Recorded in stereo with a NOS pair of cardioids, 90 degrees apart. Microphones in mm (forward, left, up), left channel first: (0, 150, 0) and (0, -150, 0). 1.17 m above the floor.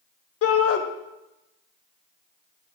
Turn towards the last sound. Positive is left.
turn(degrees=55)